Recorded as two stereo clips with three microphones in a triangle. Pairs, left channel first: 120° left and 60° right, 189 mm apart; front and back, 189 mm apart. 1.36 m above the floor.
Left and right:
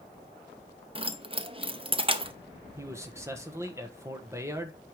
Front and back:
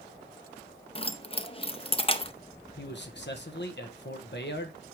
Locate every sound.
0.9 s keys jangling: 30° right, 0.7 m
2.8 s a man speaking: 15° left, 1.4 m